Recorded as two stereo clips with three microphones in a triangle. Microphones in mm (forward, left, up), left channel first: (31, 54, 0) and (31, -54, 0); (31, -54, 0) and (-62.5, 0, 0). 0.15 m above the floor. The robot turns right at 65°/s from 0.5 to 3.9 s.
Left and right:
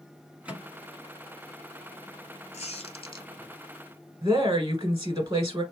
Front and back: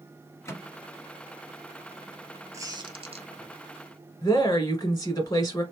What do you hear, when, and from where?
0.5 s a microwave: 30° right, 1.1 m; by 3.5 s 170° left, 1.1 m
2.5 s a squeak: 90° left, 0.8 m; by 3.3 s 135° left, 0.8 m
4.2 s a woman speaking: 65° right, 1.3 m